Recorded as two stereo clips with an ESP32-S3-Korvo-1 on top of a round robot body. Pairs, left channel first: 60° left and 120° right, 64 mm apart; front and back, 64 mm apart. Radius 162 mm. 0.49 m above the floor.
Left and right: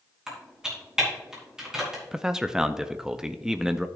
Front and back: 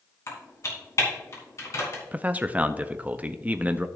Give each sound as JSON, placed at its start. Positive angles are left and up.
{"t": 0.3, "sound": "typing on a keyboard", "azimuth_deg": -40, "distance_m": 3.0}
{"t": 2.1, "sound": "a man speaking", "azimuth_deg": 175, "distance_m": 0.7}